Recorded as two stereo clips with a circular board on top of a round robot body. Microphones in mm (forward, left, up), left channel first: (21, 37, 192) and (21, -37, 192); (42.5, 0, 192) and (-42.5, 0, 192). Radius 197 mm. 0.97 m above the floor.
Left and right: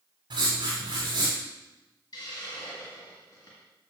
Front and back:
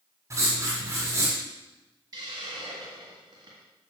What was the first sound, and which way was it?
Writing, 120° right.